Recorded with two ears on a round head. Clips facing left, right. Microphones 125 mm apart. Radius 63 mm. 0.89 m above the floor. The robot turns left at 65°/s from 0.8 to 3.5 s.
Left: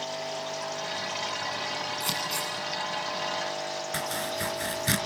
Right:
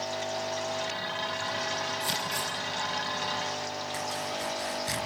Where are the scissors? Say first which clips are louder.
Even; 70° left (ahead or behind), 9 m; by 2.5 s 35° left (ahead or behind), 9 m.